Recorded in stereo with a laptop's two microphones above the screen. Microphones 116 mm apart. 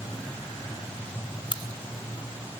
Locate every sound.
1.5 s a crack: 45° left (ahead or behind), 1.3 m